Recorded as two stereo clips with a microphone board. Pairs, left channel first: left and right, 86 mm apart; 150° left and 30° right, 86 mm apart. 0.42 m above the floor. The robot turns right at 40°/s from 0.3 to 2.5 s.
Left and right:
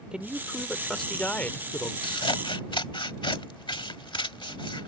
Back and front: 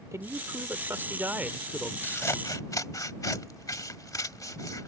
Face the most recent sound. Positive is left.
turn(degrees=105)